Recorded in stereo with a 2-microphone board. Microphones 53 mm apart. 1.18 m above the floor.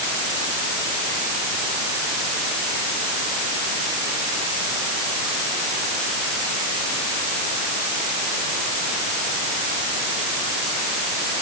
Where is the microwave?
I don't hear a microwave.